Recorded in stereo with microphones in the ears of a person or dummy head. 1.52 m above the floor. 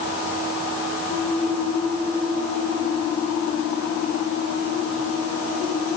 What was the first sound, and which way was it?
Only background noise.